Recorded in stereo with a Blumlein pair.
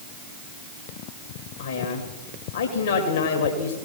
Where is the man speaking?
65° left, 1.9 m.